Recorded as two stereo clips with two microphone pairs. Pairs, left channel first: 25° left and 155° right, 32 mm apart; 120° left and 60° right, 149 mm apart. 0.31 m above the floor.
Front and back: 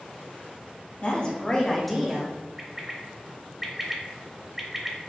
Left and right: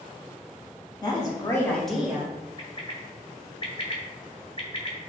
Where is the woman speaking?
65° left, 1.7 m; by 2.4 s 110° right, 1.1 m.